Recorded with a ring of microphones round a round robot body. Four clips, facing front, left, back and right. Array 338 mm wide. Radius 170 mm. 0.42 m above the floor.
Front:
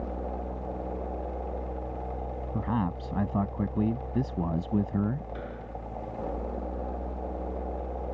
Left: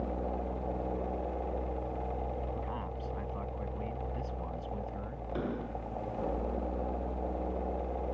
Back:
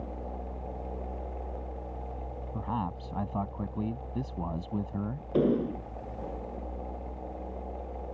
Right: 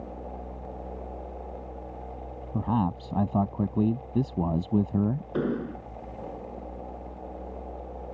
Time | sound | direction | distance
2.5 | a man speaking | 65° right | ?
5.3 | an explosion | 150° right | ?